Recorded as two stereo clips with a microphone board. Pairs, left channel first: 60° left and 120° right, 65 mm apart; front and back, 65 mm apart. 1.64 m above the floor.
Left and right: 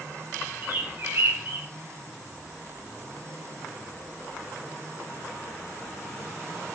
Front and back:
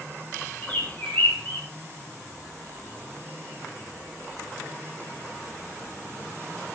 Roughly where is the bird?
Ahead right.